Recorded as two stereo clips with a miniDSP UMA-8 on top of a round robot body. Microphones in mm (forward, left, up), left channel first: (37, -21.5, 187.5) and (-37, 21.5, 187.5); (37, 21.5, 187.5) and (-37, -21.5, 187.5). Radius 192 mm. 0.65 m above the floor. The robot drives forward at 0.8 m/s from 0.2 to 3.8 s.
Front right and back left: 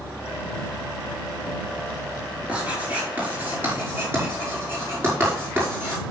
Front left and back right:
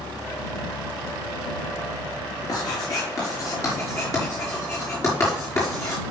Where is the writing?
75° left, 5.5 m; by 6.0 s 85° left, 5 m.